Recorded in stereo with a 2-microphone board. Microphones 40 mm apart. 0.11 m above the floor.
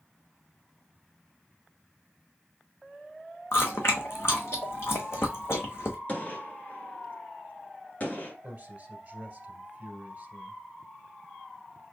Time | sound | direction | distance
3.5 | chewing | 70° left (ahead or behind) | 1.4 m
6.1 | a gunshot | 40° left (ahead or behind) | 1.5 m
8.4 | a man speaking | 35° right (ahead or behind) | 1.7 m